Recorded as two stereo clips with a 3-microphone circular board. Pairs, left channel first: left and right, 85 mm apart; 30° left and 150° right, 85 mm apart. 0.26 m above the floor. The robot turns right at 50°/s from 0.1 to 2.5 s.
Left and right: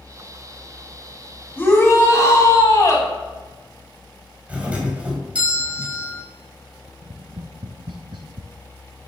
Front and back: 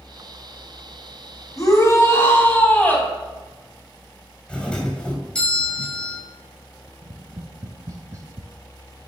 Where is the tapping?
100° right, 0.9 m.